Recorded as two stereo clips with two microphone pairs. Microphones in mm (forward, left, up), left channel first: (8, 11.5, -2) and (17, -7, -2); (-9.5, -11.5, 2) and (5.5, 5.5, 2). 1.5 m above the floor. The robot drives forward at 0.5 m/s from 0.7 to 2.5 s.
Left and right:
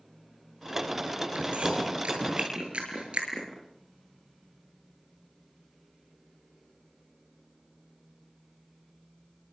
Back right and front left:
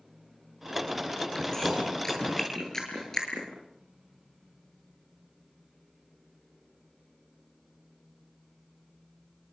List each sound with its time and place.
1.4 s chewing: 55° right, 9 m; by 3.5 s 60° right, 8.5 m